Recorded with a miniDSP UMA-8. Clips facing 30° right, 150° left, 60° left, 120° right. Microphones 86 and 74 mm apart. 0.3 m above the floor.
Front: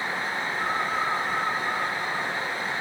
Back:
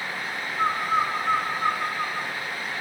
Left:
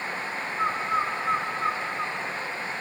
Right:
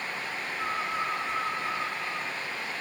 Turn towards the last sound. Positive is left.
turn(degrees=105)